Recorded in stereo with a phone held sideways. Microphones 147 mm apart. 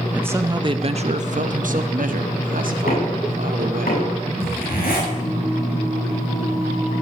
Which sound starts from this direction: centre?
A man speaking, at 0.1 s.